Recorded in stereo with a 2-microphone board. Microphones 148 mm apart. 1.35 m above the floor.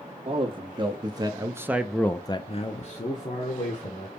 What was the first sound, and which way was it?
A man speaking, 35° right (ahead or behind).